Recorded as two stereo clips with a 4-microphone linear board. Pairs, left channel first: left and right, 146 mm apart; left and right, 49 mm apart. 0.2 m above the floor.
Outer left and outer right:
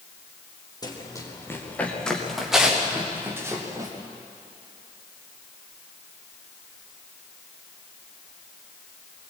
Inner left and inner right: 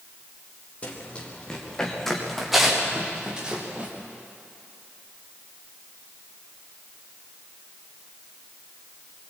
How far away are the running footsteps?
About 5 m.